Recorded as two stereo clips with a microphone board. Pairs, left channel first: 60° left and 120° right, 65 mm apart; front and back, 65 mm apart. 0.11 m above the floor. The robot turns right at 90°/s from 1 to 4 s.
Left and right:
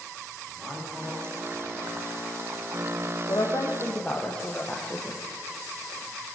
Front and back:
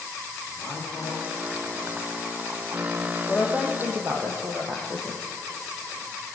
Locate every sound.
0.5 s a man speaking: 60° right, 10 m; by 3.2 s 140° left, 10 m
3.3 s a woman speaking: 70° left, 3.5 m; by 5.2 s 135° left, 3.5 m